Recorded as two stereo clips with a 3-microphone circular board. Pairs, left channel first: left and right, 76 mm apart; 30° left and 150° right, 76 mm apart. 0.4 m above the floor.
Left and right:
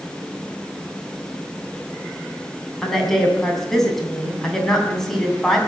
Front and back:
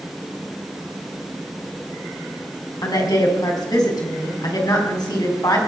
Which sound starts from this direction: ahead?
A woman speaking, at 2.8 s.